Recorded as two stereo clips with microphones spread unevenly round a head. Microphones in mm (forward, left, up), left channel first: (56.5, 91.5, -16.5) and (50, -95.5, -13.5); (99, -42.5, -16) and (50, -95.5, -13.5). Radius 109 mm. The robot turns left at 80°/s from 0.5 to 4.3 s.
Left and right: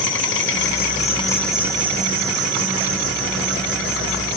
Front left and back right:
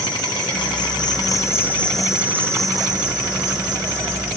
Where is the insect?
80° left, 1.1 m; by 4.4 s 135° left, 1.1 m.